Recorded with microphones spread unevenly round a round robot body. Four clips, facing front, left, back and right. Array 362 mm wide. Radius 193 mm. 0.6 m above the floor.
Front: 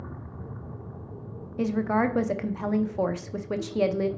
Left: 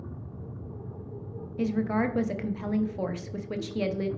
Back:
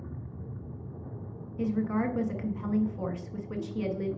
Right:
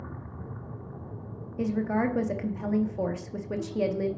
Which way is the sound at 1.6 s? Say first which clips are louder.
Even, front 4 dB; 25° right.